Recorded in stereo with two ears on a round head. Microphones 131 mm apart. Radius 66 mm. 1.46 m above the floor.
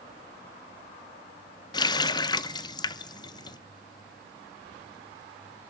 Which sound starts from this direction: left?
A running tap, at 1.7 s.